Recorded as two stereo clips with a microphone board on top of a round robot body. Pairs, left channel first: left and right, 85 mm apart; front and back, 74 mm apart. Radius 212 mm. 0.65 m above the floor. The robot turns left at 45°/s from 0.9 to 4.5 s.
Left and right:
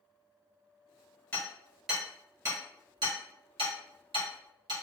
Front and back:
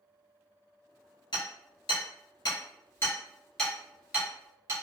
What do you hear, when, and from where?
1.3 s hammering: 20° left, 1.8 m; by 4.7 s 120° right, 1.8 m